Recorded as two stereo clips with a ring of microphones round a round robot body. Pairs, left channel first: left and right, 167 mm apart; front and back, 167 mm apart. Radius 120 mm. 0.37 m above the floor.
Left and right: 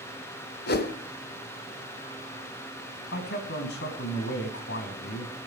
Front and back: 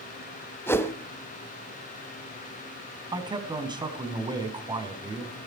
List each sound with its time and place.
0.7 s a whoosh: 75° left, 1.5 m
3.1 s a man speaking: 120° left, 4 m